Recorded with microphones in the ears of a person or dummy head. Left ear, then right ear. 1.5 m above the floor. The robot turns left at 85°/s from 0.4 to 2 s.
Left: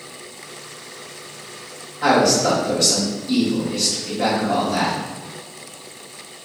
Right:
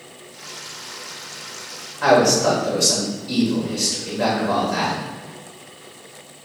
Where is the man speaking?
40° right (ahead or behind), 1.7 m.